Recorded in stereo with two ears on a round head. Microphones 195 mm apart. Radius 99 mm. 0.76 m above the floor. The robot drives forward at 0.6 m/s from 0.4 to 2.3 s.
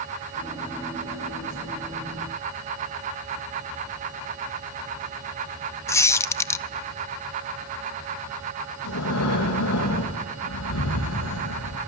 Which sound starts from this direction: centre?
A squeak, at 5.9 s.